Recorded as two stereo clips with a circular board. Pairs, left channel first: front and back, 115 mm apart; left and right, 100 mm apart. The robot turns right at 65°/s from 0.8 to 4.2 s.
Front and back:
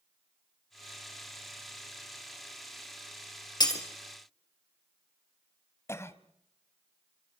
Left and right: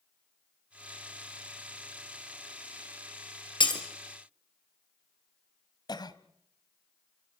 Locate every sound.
3.6 s breaking glass: 50° left, 3 m; by 3.8 s 65° left, 3 m
5.9 s a cough: 60° left, 1.4 m